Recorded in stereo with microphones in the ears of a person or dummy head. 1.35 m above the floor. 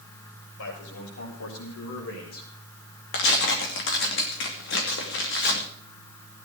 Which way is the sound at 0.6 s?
80° left.